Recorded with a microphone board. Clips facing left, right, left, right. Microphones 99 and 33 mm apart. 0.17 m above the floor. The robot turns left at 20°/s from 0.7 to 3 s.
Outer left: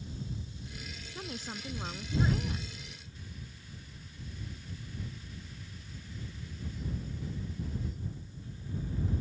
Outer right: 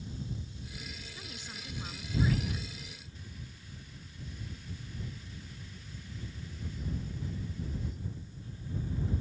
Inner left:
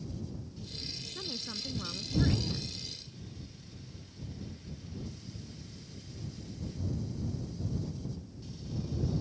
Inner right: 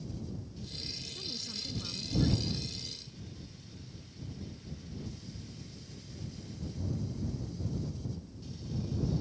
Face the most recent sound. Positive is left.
turn(degrees=35)